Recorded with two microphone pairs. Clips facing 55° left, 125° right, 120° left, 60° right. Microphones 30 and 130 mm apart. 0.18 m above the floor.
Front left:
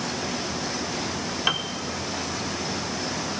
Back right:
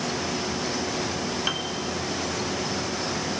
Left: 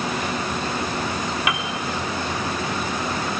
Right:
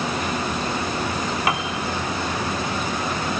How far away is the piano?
About 1.0 m.